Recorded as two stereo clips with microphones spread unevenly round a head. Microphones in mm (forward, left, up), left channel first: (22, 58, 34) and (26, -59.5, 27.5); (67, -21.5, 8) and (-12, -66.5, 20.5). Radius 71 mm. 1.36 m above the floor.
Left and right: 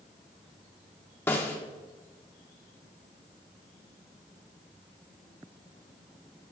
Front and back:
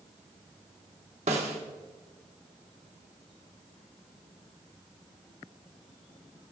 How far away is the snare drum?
About 1.2 m.